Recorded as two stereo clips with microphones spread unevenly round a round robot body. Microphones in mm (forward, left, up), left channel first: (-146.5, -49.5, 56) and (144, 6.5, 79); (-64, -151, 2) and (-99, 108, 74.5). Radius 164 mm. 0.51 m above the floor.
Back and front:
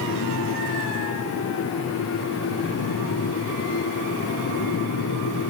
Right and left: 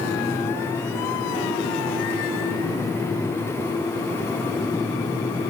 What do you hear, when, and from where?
Only background noise.